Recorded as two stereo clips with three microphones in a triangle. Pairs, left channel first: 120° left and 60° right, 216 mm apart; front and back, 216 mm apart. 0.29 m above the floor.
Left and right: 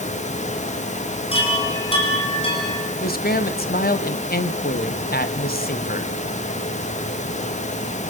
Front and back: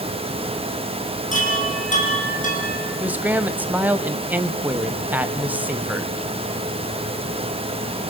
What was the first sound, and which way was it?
A chime, 55° left.